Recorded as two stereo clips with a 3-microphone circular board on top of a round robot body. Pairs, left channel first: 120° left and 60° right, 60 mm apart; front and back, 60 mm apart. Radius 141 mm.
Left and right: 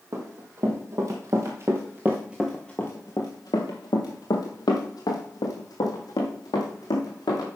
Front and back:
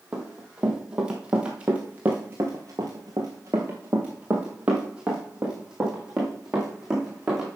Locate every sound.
0.1 s running footsteps: 100° right, 1.7 m; by 7.5 s 100° left, 2.5 m